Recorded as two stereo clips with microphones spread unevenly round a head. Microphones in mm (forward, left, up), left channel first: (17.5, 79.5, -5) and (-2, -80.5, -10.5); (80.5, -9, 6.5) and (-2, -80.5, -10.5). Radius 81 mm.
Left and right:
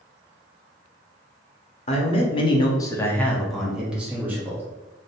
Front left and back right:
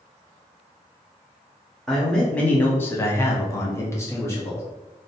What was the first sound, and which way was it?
A man speaking, 120° left.